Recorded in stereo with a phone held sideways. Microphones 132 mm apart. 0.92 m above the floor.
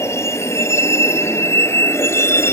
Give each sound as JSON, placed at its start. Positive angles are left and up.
{"t": 0.0, "sound": "a vehicle", "side_deg": 20}